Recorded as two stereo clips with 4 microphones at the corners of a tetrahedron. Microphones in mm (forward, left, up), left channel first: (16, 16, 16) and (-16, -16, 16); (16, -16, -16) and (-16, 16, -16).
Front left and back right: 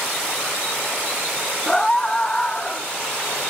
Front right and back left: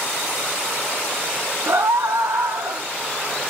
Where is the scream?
125° left, 1.3 m; by 2.9 s 115° left, 2.5 m.